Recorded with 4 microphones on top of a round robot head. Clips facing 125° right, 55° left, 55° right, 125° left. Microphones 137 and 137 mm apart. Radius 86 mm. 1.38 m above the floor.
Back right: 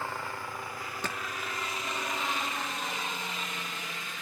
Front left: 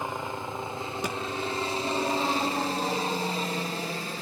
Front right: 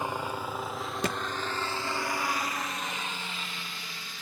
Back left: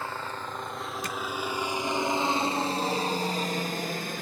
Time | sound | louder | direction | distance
0.0 | a helicopter | front left 4 dB, front right 3 dB | 5° left | ?
1.0 | a thud | front left 4 dB, front right 7 dB | 25° right | ?